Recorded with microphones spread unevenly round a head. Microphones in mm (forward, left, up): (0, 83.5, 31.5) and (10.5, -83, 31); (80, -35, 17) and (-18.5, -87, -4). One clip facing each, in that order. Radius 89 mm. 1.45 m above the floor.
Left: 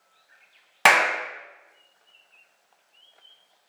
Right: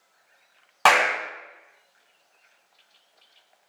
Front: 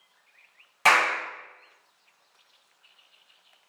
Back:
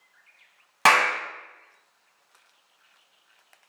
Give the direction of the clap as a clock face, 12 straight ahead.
6 o'clock.